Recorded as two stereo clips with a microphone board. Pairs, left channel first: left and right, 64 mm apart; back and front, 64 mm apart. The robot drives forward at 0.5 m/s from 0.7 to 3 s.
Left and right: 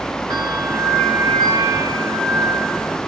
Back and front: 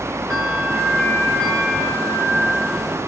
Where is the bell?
100° right, 4 m; by 3.0 s 115° right, 4.5 m.